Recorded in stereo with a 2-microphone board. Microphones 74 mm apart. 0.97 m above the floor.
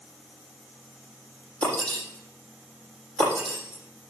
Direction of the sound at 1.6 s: 15° left (ahead or behind).